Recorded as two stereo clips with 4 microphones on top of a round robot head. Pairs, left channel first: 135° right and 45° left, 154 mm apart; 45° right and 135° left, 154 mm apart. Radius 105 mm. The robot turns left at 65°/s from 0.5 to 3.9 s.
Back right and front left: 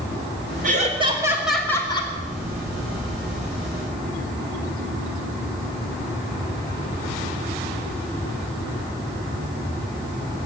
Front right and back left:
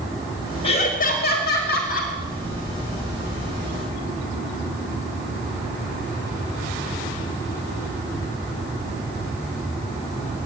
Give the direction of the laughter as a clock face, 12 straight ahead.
12 o'clock.